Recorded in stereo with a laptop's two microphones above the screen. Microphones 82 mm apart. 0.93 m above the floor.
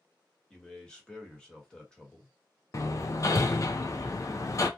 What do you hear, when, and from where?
0.5 s a man speaking: 10° left (ahead or behind), 1.2 m
2.7 s hammering: 40° left (ahead or behind), 0.5 m